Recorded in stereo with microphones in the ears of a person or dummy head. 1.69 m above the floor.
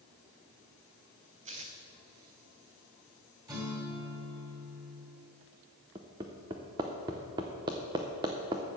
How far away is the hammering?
About 0.7 m.